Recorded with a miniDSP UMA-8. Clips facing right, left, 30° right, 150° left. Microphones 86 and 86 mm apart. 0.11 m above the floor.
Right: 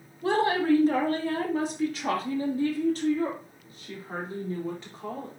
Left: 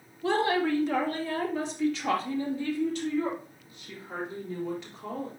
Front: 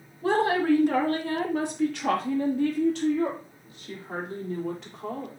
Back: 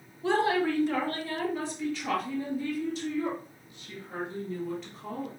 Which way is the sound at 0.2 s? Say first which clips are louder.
Right 2 dB, front 3 dB; 60° right.